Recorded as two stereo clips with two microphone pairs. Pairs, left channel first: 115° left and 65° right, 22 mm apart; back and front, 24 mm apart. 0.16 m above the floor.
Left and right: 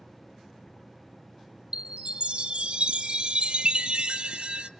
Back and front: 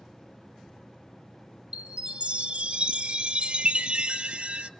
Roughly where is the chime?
Ahead right.